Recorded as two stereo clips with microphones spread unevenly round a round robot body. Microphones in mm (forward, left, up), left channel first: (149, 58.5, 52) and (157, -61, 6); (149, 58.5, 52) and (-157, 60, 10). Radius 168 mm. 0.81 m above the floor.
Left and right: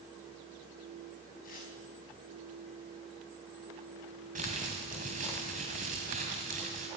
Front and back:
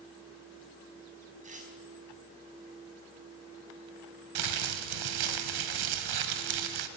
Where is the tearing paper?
110° left, 5 m.